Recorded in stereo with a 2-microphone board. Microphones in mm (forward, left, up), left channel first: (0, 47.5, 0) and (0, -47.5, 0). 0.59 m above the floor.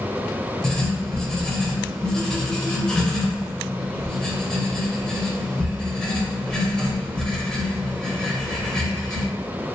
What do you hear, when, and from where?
0.6 s writing: 5° left (ahead or behind), 0.5 m